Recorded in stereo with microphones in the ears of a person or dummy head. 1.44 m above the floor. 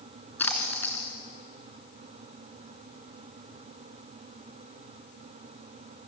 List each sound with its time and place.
0.4 s a splash: 15° left (ahead or behind), 3 m